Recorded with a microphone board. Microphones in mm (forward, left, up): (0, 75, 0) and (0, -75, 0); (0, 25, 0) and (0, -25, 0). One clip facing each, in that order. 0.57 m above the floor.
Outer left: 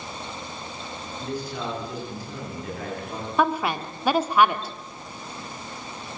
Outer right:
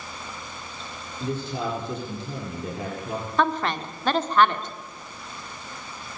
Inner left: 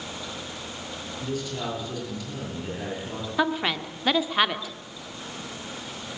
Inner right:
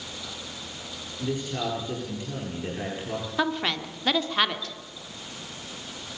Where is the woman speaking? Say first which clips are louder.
Outer left 1 dB, inner left 2 dB; 10° left (ahead or behind), 1.5 m.